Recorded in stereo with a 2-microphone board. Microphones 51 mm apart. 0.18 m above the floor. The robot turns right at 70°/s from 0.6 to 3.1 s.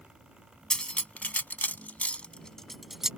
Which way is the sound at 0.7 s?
15° left (ahead or behind).